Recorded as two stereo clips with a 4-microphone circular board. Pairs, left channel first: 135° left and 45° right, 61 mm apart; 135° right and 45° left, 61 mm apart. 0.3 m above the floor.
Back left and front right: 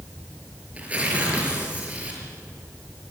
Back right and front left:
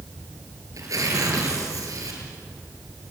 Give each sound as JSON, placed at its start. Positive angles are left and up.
{"t": 0.7, "sound": "tearing paper", "azimuth_deg": 20, "distance_m": 5.5}